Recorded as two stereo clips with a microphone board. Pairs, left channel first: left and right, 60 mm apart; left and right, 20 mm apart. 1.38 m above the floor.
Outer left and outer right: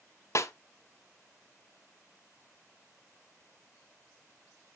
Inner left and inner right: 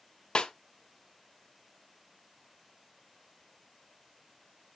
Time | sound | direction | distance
0.3 | a snare drum | 55° left (ahead or behind) | 0.7 m